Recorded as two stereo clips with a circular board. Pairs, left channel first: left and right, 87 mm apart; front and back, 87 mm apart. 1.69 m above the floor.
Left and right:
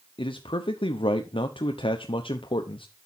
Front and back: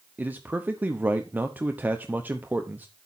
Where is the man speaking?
110° left, 0.8 m.